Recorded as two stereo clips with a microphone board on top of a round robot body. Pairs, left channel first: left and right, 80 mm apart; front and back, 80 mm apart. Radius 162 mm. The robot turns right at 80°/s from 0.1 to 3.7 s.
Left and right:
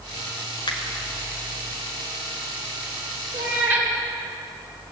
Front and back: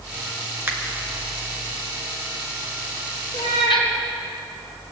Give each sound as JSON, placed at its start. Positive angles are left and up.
{"t": 0.7, "sound": "a finger snap", "azimuth_deg": 115, "distance_m": 1.8}
{"t": 3.3, "sound": "a cat meowing", "azimuth_deg": -50, "distance_m": 2.0}